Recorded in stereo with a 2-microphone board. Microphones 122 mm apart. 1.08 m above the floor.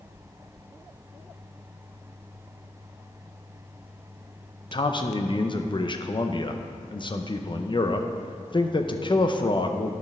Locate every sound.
4.7 s a man speaking: 40° left (ahead or behind), 0.6 m